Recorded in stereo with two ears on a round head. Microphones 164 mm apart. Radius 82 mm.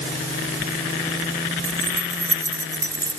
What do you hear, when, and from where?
1.6 s keys jangling: 15° right (ahead or behind); by 3.2 s 20° right (ahead or behind)